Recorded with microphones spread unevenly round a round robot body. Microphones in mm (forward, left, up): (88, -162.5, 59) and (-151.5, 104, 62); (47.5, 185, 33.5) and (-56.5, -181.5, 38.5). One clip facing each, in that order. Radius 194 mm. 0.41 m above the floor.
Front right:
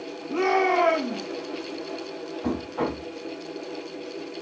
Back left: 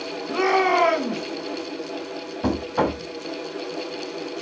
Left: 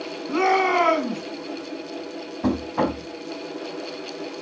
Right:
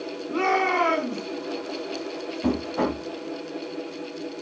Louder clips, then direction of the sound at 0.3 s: Back left 1 dB, left 4 dB; 100° left.